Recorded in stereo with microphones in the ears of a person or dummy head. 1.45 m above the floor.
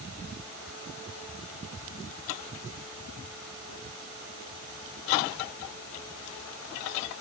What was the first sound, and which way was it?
Only background noise.